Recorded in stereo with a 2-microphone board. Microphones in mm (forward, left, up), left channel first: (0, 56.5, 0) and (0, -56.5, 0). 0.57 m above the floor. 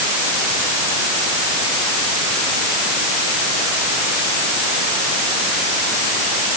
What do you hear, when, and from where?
Only background noise.